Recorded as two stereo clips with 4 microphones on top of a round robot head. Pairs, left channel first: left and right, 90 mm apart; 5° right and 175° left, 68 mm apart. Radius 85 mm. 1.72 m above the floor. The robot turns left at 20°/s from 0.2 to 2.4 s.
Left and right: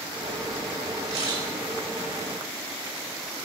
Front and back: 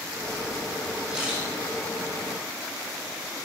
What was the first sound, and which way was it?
A camera shutter, 110° right.